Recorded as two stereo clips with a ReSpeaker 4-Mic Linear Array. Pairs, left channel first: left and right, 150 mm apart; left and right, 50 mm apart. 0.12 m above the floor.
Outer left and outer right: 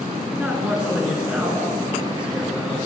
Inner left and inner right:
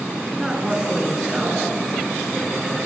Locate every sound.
0.3 s a man speaking: 10° right (ahead or behind), 1.4 m